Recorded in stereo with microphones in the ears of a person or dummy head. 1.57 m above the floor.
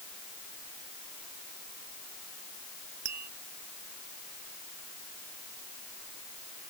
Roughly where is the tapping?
Right.